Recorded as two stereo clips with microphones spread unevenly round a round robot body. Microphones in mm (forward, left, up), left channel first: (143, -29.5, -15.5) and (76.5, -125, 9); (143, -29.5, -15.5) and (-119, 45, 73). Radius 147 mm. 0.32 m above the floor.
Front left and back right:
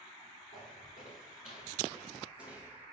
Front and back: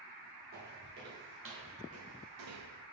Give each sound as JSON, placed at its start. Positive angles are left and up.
{"t": 0.5, "sound": "footsteps", "azimuth_deg": 110, "distance_m": 3.0}